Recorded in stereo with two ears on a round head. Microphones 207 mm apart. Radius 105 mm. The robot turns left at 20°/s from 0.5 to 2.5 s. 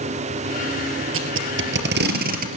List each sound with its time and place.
1.1 s tape being pulled: 65° right (ahead or behind), 3.5 m; by 2.5 s 40° right (ahead or behind), 3.5 m